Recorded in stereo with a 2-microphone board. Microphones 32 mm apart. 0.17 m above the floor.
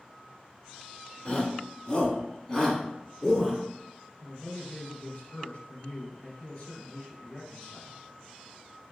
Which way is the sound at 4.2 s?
20° left (ahead or behind).